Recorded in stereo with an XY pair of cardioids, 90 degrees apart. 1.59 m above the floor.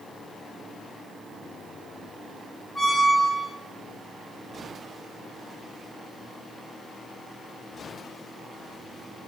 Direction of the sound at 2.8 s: 20° left.